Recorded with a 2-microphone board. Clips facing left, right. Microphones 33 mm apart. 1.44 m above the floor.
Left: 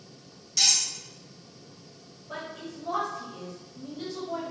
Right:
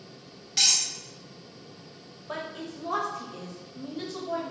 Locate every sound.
0.6 s cutlery clinking: 35° right (ahead or behind), 0.9 m
2.3 s a woman speaking: 75° right (ahead or behind), 0.7 m